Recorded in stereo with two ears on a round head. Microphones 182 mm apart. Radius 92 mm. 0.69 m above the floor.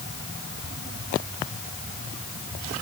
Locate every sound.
Only background noise.